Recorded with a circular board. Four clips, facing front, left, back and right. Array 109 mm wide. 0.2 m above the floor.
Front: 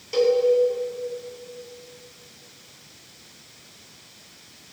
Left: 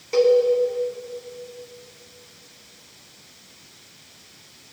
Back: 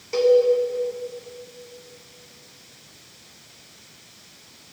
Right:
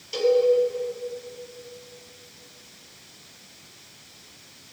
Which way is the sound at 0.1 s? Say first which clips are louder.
Left 4 dB, back 3 dB; 110° left.